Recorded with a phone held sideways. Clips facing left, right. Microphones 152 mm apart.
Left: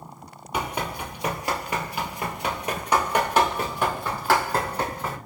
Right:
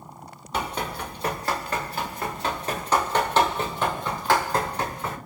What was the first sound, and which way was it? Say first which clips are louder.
Running footsteps: even; 10° left (ahead or behind).